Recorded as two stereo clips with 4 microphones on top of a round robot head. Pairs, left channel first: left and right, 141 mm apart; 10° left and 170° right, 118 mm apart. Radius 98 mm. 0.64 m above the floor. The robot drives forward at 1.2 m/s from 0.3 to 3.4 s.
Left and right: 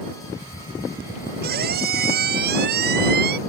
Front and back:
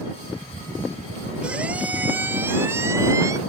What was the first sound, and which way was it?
A squeak, 85° right.